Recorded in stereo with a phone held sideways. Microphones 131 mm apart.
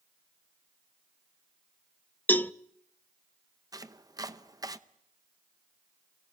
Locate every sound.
2.3 s a cowbell: 15° left (ahead or behind), 0.5 m
3.7 s chopping: 30° right (ahead or behind), 0.8 m